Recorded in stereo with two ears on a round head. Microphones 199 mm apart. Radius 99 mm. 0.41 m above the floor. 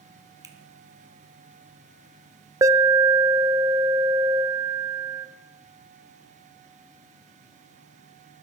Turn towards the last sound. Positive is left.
turn(degrees=-15)  # may be behind; listen again after turning